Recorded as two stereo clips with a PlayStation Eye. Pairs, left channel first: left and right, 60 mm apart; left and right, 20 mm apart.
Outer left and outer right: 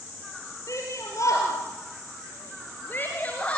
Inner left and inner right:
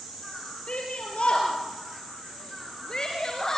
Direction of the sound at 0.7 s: 60° left (ahead or behind).